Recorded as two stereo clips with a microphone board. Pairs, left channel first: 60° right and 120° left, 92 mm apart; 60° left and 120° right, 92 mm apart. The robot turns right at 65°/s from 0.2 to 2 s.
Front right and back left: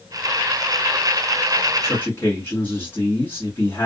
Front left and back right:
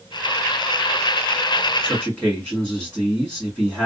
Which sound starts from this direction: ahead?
A man speaking, at 1.8 s.